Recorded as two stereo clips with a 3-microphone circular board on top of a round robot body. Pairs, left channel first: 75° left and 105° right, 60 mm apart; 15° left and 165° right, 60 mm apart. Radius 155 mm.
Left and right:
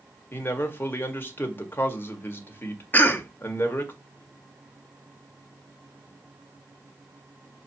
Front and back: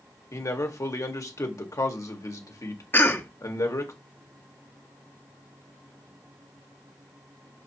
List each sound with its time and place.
0.3 s a man speaking: 25° left, 1.8 m
2.9 s a cough: 35° left, 1.6 m